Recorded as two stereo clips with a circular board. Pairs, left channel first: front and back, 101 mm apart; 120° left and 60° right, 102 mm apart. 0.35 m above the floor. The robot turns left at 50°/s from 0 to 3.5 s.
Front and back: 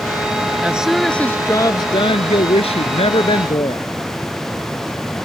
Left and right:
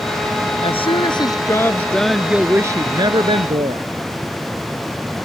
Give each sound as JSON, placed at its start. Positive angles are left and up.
{"t": 0.6, "sound": "a woman speaking", "azimuth_deg": 105}